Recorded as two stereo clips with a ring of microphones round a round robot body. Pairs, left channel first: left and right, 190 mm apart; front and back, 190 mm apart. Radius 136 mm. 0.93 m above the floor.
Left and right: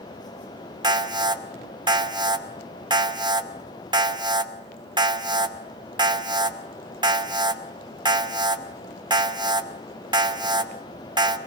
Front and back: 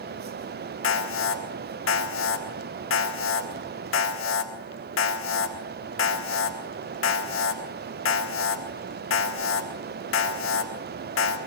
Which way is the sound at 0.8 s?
25° right.